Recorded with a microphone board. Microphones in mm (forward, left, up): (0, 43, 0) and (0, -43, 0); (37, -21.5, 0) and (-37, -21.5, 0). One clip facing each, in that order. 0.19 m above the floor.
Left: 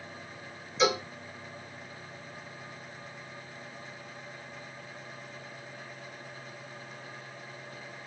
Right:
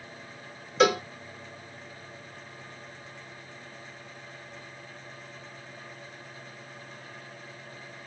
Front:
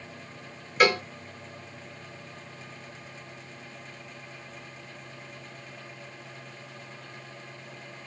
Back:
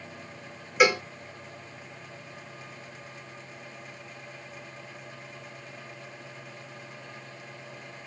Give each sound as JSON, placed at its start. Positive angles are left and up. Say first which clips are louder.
{"t": 0.8, "sound": "a cowbell", "louder": "right 5 dB, even", "azimuth_deg": -100, "distance_m": 1.3}